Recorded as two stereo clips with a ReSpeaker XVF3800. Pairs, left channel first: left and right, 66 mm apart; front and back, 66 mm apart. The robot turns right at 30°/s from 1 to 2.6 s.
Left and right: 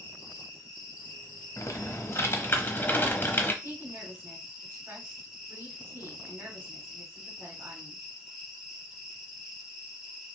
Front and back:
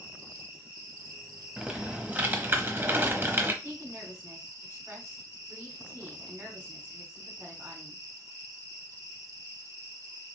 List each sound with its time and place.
0.0 s an insect: 135° left, 3 m; by 10.3 s straight behind, 3 m
1.6 s typing on a keyboard: 105° left, 0.9 m; by 3.5 s 140° left, 0.9 m
3.6 s a woman speaking: 140° right, 2 m